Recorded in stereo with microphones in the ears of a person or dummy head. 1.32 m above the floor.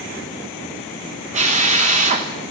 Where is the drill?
40° right (ahead or behind), 1.1 m.